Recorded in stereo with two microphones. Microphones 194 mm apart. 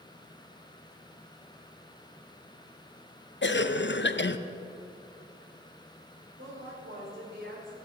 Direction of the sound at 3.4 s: 60° left (ahead or behind).